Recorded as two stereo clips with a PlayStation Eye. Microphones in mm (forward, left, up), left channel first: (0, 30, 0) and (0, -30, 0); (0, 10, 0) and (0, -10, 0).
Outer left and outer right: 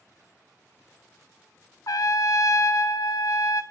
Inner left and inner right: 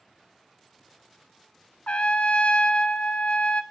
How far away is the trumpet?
About 0.5 m.